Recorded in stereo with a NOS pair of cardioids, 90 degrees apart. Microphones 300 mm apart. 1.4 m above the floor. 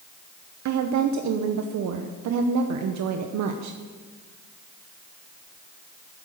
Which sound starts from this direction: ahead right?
A woman speaking, at 0.7 s.